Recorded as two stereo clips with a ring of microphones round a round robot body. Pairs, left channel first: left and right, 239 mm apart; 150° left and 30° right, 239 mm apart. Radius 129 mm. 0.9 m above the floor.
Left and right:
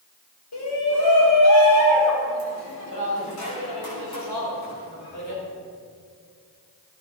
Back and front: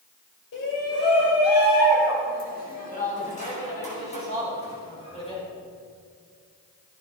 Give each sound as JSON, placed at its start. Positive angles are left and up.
{"t": 0.5, "sound": "a shout", "azimuth_deg": 110, "distance_m": 4.5}